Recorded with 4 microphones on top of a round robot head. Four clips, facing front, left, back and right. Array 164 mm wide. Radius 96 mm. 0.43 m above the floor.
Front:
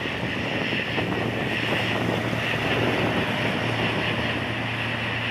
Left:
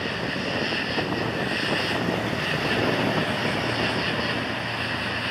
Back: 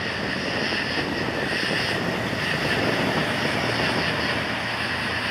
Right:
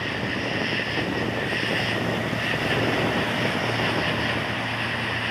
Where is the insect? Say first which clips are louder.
Even, back 1 dB; 130° left.